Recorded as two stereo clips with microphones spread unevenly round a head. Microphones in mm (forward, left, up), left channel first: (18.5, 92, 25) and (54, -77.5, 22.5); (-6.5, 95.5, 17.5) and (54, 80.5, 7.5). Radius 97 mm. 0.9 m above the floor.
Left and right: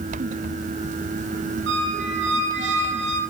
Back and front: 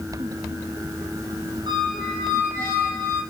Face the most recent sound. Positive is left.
turn(degrees=-60)